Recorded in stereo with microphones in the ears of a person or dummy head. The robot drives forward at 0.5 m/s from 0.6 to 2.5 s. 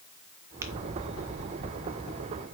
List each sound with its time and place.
0.6 s tapping: 15° right (ahead or behind), 1.1 m; by 0.7 s 20° right (ahead or behind), 1.1 m